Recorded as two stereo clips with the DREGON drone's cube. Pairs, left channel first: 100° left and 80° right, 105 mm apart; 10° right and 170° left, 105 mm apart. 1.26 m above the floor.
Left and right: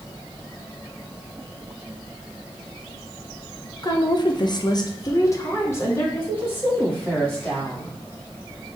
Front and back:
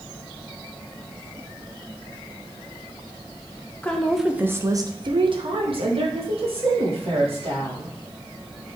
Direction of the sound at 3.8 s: 60° left.